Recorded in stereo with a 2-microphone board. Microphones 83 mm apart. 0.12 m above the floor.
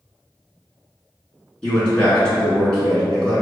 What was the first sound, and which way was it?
A man speaking, 10° left (ahead or behind).